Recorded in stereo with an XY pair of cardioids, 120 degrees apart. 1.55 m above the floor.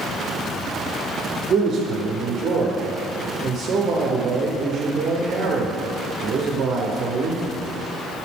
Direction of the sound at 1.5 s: 50° right.